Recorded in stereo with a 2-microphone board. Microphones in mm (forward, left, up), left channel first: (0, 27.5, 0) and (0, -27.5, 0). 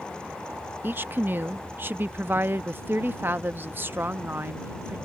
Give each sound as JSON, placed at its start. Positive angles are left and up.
{"t": 0.8, "sound": "a woman speaking", "side_deg": -40}